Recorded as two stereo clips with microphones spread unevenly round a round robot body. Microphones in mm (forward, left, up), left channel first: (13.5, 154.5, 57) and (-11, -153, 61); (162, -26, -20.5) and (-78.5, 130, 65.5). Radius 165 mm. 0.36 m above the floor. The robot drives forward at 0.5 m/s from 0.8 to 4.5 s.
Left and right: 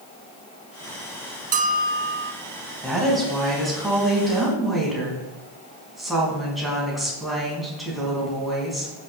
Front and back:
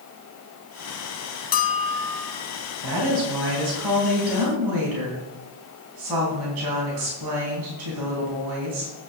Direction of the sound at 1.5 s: 35° right.